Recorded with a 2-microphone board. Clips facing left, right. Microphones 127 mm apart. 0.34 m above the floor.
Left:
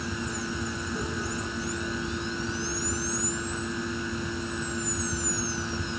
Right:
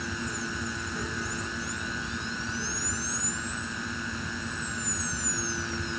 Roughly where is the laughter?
I don't hear laughter.